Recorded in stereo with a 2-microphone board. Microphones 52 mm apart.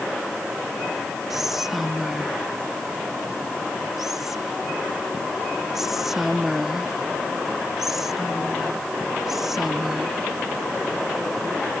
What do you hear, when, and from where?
1.3 s whispering: 5° right (ahead or behind)